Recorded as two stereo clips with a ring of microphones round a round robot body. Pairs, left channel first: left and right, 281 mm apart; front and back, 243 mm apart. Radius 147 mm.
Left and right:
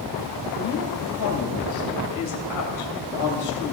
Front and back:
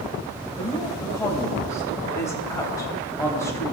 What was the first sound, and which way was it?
A woman speaking, 80° left.